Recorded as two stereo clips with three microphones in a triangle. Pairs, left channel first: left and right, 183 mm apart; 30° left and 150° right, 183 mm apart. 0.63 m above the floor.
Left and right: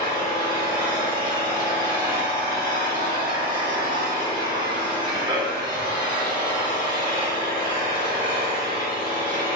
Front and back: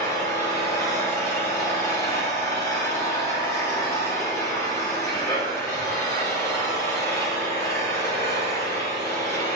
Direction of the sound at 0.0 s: 40° right.